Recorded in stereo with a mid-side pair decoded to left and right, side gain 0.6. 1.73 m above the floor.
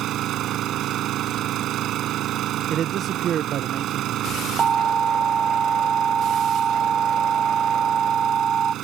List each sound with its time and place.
0.0 s an engine running: 55° right
2.7 s a man speaking: 50° right
4.6 s an alarm: 40° right